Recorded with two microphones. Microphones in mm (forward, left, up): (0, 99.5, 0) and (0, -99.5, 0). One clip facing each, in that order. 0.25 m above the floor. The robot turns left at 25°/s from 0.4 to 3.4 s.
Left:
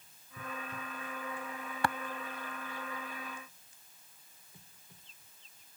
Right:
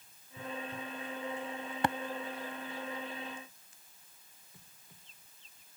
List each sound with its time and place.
1.8 s tapping: 25° right (ahead or behind)